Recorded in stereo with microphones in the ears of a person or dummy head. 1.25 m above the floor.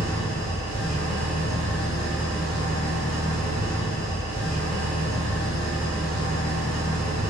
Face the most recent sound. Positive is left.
turn(degrees=5)  # may be behind; listen again after turning